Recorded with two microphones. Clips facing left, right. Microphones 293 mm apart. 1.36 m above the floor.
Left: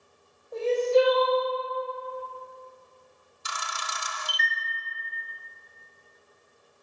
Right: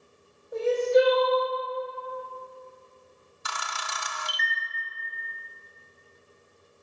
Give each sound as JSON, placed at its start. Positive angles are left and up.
{"t": 0.5, "sound": "crying", "side_deg": -15, "distance_m": 2.0}
{"t": 3.5, "sound": "a camera shutter", "side_deg": -65, "distance_m": 0.6}